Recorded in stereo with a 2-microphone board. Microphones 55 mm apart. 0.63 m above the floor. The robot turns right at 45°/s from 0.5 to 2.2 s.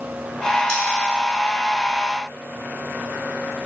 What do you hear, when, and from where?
0.7 s cutlery clinking: 25° left (ahead or behind), 1.4 m; by 0.8 s 30° left (ahead or behind), 1.4 m